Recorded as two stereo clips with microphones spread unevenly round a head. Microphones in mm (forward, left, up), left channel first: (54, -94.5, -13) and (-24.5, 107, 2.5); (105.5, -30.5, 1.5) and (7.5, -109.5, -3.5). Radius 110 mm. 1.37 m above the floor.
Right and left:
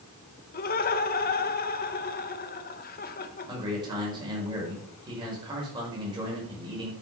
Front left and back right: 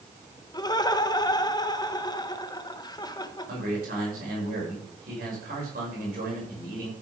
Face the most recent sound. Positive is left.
turn(degrees=180)